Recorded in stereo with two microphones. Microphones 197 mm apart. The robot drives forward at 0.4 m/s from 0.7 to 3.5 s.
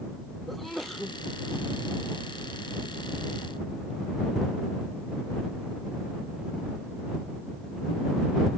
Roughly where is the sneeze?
Centre.